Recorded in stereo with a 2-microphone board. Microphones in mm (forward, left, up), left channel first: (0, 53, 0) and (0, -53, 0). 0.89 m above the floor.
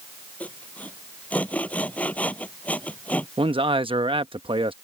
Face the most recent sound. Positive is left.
turn(degrees=-55)  # may be behind; listen again after turning